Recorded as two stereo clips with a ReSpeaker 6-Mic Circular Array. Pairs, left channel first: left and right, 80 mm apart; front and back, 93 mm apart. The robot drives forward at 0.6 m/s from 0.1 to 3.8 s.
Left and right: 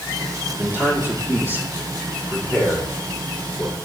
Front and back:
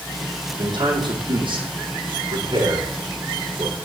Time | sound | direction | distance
0.6 | a man speaking | 150° right | 5.5 m